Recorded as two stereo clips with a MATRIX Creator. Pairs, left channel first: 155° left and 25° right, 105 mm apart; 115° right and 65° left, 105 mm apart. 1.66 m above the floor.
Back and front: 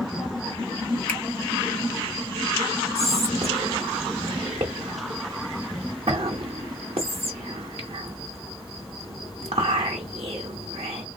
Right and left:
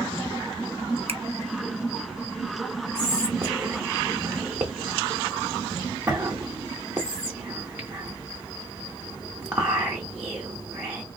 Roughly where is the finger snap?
Left.